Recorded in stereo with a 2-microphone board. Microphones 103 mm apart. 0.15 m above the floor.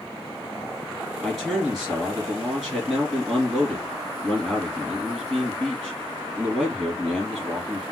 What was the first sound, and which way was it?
A man speaking, centre (ahead or behind).